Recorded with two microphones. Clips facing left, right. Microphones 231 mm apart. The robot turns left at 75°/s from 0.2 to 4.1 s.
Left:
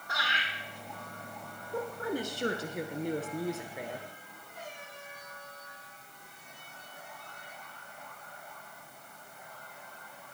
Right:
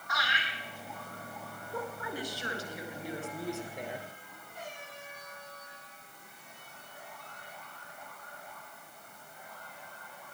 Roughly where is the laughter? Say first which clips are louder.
Right 1 dB; left.